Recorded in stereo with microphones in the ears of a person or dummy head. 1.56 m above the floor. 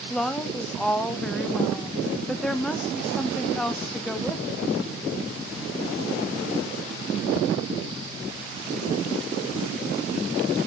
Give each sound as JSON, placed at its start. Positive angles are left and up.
{"t": 0.1, "sound": "a woman speaking", "side_deg": 5, "distance_m": 1.5}